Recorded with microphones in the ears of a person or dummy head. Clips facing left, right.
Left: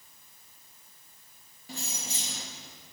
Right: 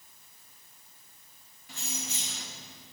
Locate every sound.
1.7 s keys jangling: 30° left (ahead or behind), 1.1 m